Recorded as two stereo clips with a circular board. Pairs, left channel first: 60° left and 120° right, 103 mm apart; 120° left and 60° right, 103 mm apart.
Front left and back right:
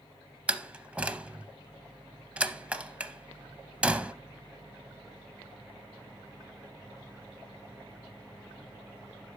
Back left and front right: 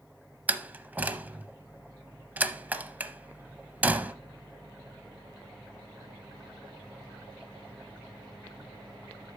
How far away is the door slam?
About 0.6 m.